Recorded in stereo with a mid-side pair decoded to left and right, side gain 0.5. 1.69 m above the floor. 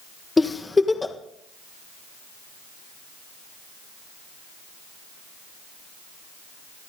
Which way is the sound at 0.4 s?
20° left.